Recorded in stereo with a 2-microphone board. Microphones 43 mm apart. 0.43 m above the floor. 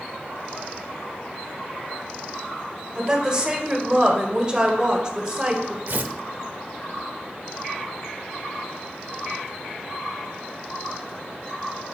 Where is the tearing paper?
55° right (ahead or behind), 0.6 m.